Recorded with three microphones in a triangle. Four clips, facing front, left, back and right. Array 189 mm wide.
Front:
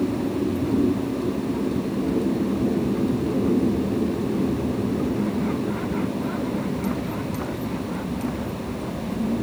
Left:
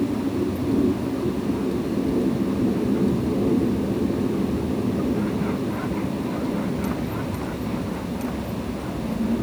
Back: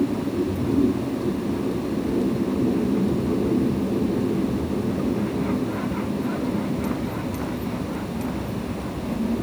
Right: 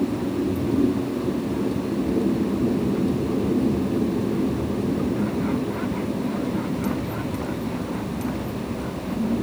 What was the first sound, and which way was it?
Only background noise.